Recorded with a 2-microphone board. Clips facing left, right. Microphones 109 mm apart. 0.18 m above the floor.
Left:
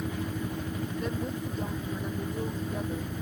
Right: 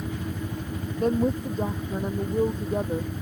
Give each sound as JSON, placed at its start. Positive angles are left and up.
{"t": 1.0, "sound": "a woman speaking", "side_deg": -40}